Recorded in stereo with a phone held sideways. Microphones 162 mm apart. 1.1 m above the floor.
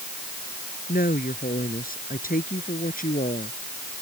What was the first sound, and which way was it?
A woman speaking, 65° left (ahead or behind).